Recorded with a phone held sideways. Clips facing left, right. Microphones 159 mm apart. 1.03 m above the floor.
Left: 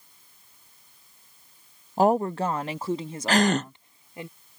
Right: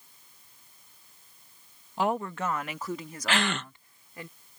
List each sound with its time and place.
2.0 s a woman speaking: 40° left (ahead or behind); by 4.3 s 20° left (ahead or behind)
3.3 s a gasp: 40° left (ahead or behind)